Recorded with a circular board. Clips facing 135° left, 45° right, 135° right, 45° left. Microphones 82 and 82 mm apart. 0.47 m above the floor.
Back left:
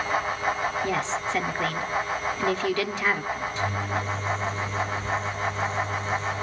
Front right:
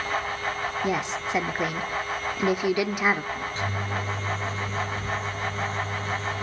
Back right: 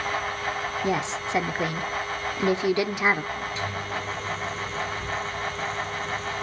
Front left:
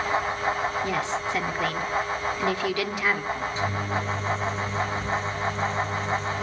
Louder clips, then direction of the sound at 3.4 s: Back left 2 dB, front left 3 dB; 5° right.